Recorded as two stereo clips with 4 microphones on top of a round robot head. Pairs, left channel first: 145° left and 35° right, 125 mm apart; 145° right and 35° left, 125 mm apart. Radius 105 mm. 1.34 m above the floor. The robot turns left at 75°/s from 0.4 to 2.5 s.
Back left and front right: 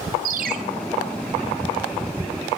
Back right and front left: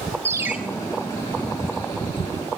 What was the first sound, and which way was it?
A ringtone, 35° right.